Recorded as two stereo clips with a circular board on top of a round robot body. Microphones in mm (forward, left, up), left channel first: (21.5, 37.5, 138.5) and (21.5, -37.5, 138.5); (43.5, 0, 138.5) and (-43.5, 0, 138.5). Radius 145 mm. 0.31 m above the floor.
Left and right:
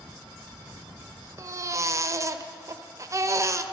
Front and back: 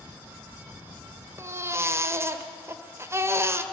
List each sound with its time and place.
1.4 s a baby crying: 125° right, 1.5 m